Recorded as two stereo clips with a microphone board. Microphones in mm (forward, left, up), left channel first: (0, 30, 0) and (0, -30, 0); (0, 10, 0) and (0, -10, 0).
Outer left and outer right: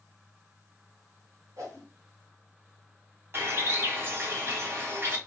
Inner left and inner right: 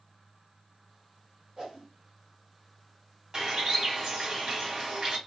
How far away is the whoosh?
About 1.9 m.